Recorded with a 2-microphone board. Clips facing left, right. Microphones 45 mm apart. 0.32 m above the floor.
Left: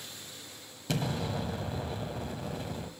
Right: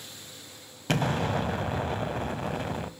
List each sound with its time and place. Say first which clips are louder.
0.9 s an explosion: right 6 dB; 55° right (ahead or behind), 0.9 m